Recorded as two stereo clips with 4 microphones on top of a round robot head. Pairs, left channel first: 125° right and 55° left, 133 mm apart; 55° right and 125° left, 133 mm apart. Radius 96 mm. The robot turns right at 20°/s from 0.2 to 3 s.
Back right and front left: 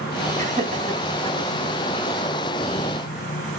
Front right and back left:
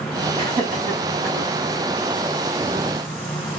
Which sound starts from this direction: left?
Laughter, at 0.4 s.